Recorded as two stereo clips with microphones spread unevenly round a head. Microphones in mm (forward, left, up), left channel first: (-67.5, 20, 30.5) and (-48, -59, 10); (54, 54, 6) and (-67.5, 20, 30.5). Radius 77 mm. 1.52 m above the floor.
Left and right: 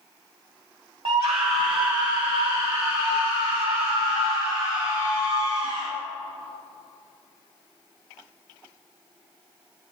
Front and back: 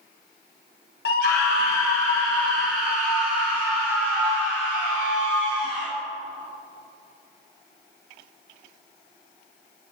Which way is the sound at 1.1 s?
15° right.